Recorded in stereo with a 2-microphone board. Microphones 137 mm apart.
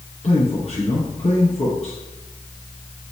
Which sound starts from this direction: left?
A man speaking, at 0.2 s.